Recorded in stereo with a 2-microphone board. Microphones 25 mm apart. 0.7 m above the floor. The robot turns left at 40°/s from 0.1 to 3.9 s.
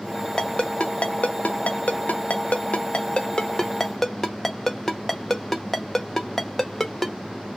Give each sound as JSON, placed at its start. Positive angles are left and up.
{"t": 0.4, "sound": "a ringtone", "side_deg": 30, "distance_m": 0.7}